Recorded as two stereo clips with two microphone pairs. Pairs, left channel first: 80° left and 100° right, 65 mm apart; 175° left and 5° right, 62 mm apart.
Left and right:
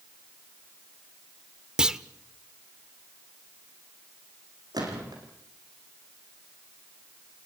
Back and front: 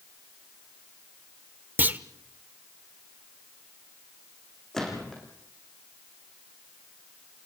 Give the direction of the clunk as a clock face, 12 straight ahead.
1 o'clock.